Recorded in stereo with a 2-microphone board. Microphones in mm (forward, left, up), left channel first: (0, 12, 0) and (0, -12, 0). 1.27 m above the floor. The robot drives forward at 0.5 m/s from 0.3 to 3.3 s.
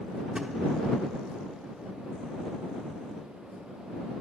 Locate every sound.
0.3 s a thud: 30° right (ahead or behind), 0.9 m; by 0.5 s 25° right (ahead or behind), 0.9 m